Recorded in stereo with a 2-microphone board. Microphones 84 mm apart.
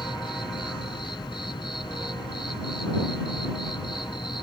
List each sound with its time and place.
0.0 s an insect: 75° left (ahead or behind)